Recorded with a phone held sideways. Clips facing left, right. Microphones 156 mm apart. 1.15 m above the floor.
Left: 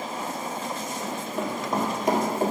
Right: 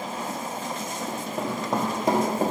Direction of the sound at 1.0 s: 40° right (ahead or behind).